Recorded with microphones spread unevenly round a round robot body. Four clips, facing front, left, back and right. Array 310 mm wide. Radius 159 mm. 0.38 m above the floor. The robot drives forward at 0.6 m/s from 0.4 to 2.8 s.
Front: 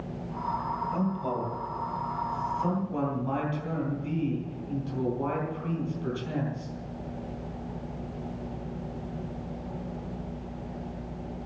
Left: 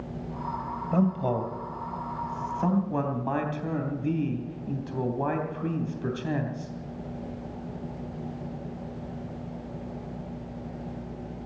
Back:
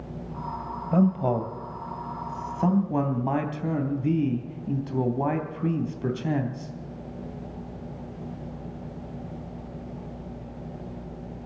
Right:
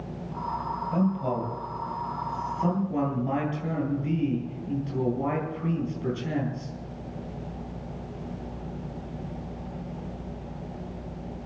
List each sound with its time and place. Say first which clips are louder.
0.9 s a man speaking: left 2 dB, back 12 dB; 165° left, 2.5 m; by 6.7 s 170° left, 3.5 m